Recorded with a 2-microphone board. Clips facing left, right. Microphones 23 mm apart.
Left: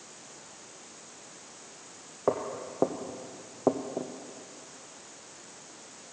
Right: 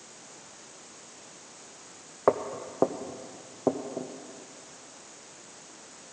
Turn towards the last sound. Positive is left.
turn(degrees=30)  # may be behind; listen again after turning